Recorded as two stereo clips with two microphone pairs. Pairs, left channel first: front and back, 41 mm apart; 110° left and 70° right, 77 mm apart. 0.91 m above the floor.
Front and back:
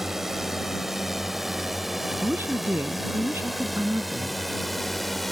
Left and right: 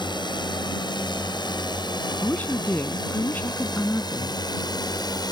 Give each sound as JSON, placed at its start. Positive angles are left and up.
{"t": 0.0, "sound": "a drone", "azimuth_deg": 100}
{"t": 2.2, "sound": "a woman speaking", "azimuth_deg": 175}